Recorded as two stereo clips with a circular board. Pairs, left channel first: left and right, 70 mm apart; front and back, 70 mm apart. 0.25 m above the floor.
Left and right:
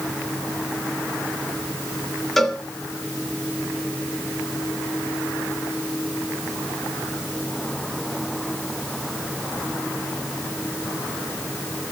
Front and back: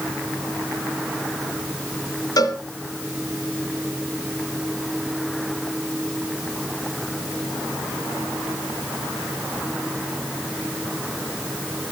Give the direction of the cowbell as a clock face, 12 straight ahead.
12 o'clock.